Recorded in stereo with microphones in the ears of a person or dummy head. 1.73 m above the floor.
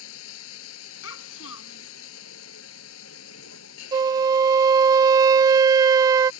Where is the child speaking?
70° left (ahead or behind).